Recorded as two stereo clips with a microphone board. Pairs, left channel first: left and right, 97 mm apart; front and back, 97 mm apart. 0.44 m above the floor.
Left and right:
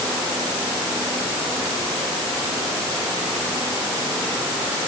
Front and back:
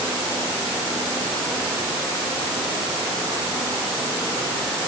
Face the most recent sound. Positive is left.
No sound to turn to.